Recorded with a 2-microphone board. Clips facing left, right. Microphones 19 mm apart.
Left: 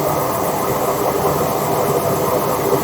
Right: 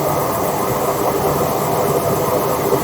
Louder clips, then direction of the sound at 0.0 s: Even; 60° left (ahead or behind).